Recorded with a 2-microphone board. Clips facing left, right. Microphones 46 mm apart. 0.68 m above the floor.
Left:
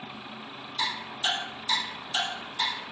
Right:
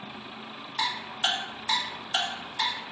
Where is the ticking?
50° right (ahead or behind), 1.8 m.